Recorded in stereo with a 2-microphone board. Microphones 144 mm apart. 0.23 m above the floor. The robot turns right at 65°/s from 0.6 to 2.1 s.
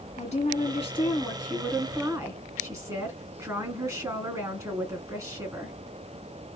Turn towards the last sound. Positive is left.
turn(degrees=-150)